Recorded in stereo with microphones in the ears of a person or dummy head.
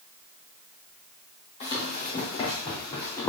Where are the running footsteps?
25° left (ahead or behind), 2.0 m; by 3.3 s 20° left (ahead or behind), 3 m.